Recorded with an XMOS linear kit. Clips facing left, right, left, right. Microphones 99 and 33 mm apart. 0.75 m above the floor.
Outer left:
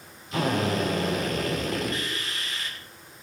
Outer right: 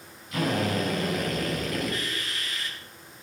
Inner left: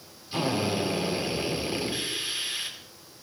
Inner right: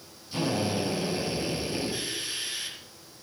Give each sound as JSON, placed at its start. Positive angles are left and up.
{"t": 0.3, "sound": "a drill", "side_deg": 30, "distance_m": 5.5}